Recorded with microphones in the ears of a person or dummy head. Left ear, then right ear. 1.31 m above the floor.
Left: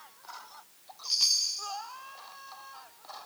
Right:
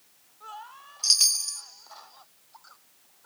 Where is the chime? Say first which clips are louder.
Right 4 dB; 55° right (ahead or behind), 1.2 m.